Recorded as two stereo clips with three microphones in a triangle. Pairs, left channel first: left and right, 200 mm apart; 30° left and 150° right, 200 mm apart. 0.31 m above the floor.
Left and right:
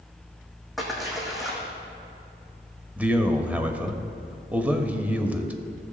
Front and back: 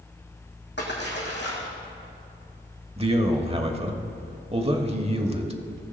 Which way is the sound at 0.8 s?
Straight ahead.